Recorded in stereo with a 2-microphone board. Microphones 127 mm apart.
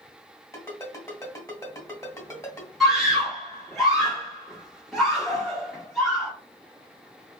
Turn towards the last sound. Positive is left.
turn(degrees=0)  # may be behind; listen again after turning